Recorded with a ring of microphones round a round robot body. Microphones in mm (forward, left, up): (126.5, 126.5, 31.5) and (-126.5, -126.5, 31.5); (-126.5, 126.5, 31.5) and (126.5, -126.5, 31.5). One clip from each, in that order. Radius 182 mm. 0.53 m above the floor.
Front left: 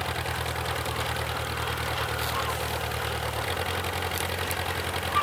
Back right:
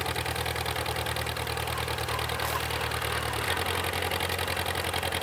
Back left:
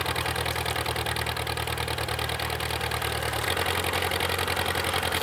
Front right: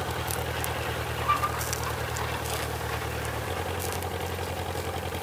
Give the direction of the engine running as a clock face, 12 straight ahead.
7 o'clock.